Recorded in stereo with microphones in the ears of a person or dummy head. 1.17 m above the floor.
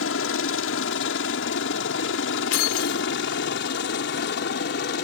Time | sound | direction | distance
0.0 | a helicopter | 65° left (ahead or behind) | ?
2.5 | keys jangling | 85° left | ?